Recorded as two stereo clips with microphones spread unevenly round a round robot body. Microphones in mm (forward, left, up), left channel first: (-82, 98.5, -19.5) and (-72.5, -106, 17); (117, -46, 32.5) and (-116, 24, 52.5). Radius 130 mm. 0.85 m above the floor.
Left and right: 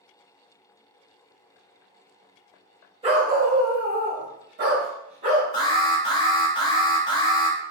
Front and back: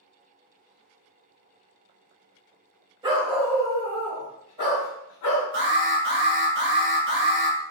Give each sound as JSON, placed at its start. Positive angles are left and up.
{"t": 3.0, "sound": "a dog barking", "azimuth_deg": -130, "distance_m": 0.9}
{"t": 5.5, "sound": "an alarm", "azimuth_deg": 140, "distance_m": 1.2}